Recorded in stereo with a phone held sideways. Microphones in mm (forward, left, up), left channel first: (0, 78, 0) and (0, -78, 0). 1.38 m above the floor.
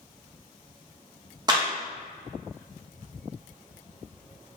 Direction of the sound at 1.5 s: 25° right (ahead or behind).